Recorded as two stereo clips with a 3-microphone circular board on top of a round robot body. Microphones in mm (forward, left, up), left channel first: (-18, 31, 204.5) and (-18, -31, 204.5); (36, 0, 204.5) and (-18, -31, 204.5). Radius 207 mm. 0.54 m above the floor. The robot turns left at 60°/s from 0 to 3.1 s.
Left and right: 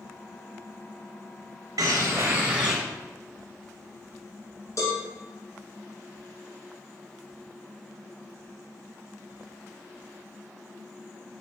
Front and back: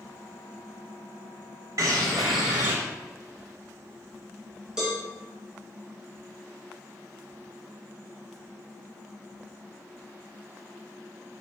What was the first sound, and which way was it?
A bird, 115° right.